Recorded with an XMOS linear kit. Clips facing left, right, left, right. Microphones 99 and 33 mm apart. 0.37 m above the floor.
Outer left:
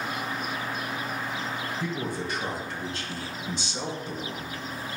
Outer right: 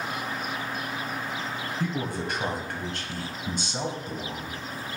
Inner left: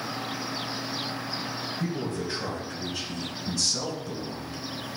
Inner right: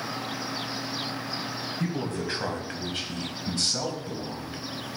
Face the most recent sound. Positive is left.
turn(degrees=-35)  # may be behind; listen again after turning